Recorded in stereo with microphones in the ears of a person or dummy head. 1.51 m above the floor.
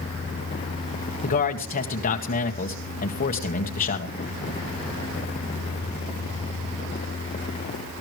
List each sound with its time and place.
1.2 s a man speaking: 45° left (ahead or behind), 1.7 m